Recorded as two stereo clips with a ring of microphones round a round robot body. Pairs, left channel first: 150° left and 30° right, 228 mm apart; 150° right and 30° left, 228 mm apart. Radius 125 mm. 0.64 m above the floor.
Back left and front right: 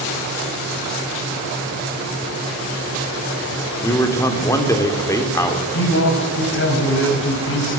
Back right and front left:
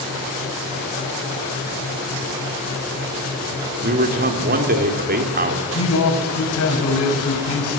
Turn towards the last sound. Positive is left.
turn(degrees=-175)